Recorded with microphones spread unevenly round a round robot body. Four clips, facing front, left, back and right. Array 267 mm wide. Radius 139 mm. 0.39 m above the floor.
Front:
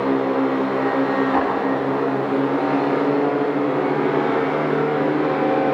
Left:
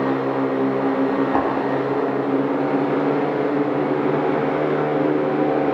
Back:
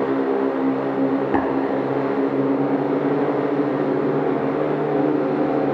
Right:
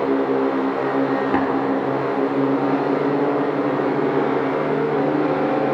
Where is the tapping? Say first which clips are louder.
Right 2 dB, front 1 dB; 150° right, 2.5 m.